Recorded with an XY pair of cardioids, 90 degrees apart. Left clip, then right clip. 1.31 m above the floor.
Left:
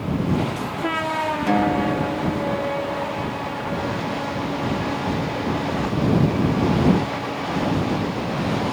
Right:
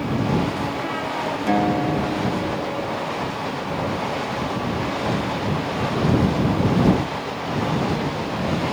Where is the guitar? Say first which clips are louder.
Right 1 dB; straight ahead.